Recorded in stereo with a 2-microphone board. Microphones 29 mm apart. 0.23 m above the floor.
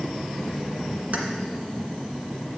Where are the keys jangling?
55° right (ahead or behind), 1.6 m.